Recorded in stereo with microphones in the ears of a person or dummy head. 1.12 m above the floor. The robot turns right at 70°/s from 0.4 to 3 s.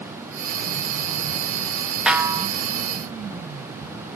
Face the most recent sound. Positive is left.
turn(degrees=-115)